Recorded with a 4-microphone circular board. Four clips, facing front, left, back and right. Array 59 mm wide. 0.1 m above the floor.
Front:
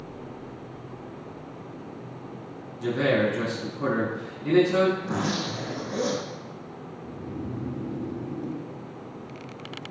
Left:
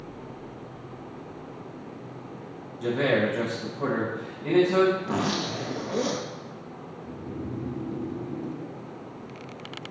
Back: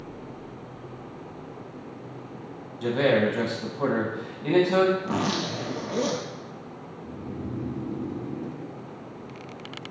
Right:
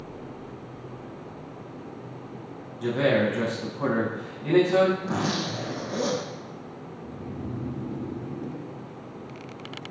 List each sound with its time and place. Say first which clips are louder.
2.8 s a man speaking: right 1 dB, back 1 dB; 175° right, 3.5 m
5.0 s a zipper: even, back 1 dB; 145° left, 2 m
7.0 s snoring: left 1 dB, even; 175° right, 3.5 m